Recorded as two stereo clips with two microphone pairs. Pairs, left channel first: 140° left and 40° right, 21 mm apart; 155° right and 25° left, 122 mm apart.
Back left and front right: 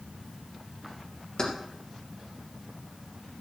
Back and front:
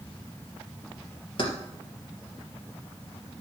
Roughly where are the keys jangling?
Behind.